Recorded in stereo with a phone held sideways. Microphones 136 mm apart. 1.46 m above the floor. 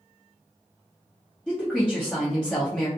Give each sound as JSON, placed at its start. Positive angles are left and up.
{"t": 1.5, "sound": "a woman speaking", "side_deg": 5, "distance_m": 0.6}